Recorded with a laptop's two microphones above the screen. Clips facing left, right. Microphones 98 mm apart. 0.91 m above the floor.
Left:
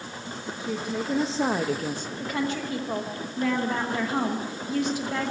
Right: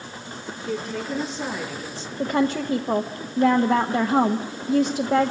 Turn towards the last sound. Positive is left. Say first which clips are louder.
# right 8 dB
turn(degrees=-40)  # may be behind; listen again after turning